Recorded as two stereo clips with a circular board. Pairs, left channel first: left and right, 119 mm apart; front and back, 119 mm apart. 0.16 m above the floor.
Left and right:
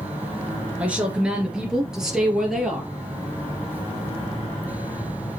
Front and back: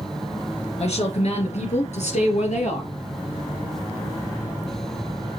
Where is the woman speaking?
10° right, 2 m; by 2.9 s straight ahead, 3 m.